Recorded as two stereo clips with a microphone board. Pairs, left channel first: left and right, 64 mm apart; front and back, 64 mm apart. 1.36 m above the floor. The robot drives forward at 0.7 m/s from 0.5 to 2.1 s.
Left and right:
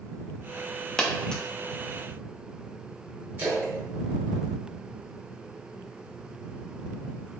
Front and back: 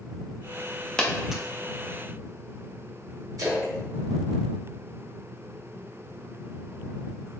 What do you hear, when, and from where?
1.0 s a dropped coin: 40° left, 0.7 m; by 1.4 s 135° left, 0.7 m
3.4 s a splash: 150° right, 1.9 m